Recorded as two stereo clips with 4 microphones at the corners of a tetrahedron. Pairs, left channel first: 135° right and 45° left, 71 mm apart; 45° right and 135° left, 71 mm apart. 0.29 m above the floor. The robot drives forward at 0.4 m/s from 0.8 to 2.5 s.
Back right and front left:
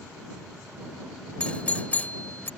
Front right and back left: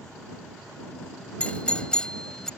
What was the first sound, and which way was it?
A doorbell, 85° right.